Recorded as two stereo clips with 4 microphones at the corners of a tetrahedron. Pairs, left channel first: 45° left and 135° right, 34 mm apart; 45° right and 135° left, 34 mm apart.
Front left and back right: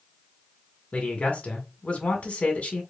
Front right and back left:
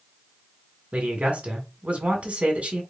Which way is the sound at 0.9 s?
95° left.